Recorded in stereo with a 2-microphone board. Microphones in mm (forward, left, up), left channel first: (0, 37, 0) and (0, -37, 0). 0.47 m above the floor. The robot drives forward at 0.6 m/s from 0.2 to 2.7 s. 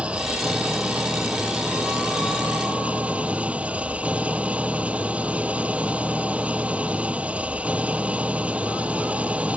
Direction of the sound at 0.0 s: 15° right (ahead or behind).